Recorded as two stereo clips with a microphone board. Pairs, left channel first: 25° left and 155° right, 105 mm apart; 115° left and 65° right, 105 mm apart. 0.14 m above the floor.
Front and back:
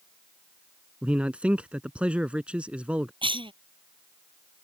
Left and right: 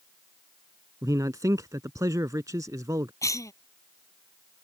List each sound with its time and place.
1.0 s a man speaking: 85° right
3.2 s a cough: 170° left